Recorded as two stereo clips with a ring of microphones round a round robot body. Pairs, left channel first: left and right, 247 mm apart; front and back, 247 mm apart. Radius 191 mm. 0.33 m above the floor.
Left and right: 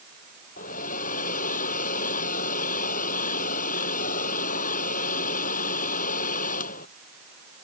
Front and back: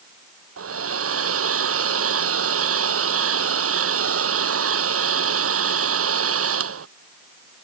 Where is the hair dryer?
155° left.